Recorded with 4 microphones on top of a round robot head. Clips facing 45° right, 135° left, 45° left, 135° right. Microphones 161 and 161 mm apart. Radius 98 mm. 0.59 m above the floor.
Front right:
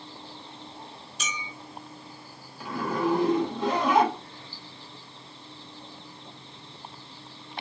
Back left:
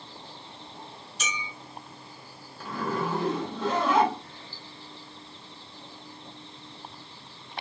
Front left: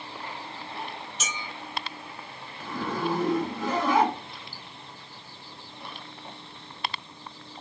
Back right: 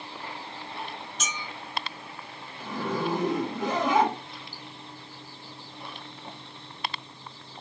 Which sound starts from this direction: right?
A zipper, at 2.6 s.